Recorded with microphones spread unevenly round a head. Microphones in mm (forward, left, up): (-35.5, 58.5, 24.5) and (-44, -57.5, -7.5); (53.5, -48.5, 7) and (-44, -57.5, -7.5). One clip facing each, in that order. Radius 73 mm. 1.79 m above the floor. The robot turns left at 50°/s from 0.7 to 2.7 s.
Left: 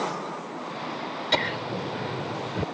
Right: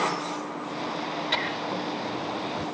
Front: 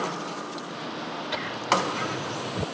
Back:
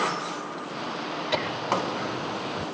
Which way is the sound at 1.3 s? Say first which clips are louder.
Left 1 dB, front 1 dB; 125° left.